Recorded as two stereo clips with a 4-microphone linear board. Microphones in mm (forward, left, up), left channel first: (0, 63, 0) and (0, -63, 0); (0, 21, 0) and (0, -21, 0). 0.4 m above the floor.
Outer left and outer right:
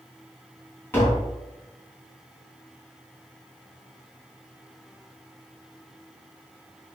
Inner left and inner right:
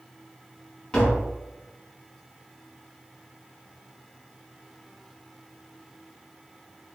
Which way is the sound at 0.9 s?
15° left (ahead or behind).